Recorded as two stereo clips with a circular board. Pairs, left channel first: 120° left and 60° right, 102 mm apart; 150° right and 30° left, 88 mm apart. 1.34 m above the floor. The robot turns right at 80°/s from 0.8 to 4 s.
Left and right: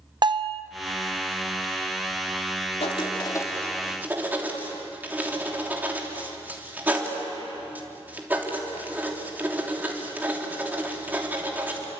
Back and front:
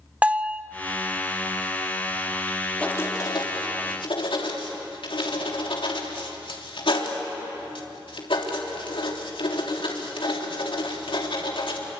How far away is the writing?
About 3 m.